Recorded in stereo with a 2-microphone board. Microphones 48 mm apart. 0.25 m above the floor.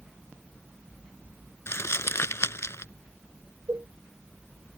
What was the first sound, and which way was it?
Crumpling, 70° left (ahead or behind).